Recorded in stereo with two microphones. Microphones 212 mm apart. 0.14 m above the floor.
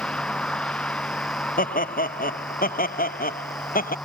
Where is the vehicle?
5° left (ahead or behind).